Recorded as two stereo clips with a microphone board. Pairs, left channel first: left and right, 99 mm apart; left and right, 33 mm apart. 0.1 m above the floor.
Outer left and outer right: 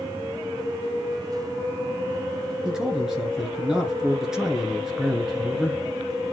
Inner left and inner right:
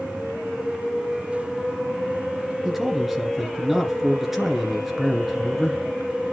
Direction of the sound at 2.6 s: 5° right (ahead or behind).